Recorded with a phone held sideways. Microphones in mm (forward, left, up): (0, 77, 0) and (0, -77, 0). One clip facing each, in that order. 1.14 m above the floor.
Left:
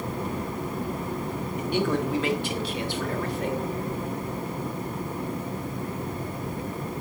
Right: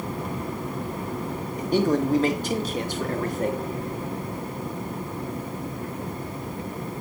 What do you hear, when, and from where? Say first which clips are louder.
1.6 s a man speaking: right 4 dB; 35° right (ahead or behind), 2 m; by 3.6 s 45° right (ahead or behind), 3 m